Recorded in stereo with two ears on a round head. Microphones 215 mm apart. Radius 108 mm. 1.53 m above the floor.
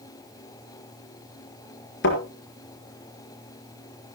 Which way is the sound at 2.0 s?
50° left (ahead or behind).